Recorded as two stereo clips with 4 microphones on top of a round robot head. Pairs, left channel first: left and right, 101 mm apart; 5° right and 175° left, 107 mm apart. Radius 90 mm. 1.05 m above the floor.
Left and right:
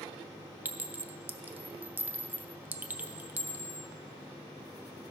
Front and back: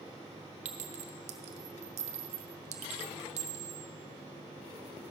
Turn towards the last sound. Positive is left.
turn(degrees=-165)